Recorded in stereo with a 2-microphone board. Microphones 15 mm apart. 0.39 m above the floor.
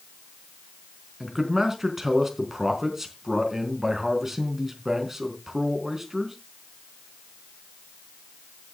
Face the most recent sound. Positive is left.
turn(degrees=-25)  # may be behind; listen again after turning